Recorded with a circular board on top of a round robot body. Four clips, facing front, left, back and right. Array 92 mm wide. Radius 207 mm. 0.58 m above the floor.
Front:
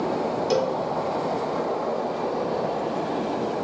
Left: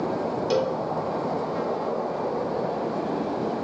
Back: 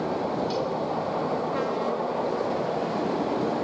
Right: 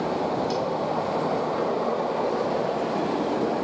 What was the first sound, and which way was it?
A cowbell, 40° left.